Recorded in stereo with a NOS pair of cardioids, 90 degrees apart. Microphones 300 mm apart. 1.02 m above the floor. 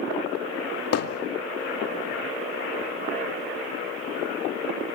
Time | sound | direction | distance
0.9 | hammering | 55° left | 2 m